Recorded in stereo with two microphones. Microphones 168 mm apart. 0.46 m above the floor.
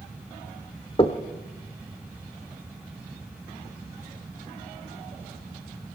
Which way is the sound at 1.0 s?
35° left (ahead or behind).